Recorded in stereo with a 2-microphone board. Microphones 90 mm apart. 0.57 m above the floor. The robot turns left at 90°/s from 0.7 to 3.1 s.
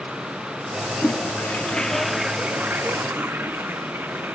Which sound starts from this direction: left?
A toilet flushing, at 1.0 s.